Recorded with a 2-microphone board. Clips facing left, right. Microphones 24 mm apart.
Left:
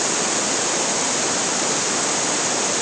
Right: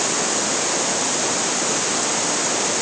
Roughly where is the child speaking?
No child speaking in this recording.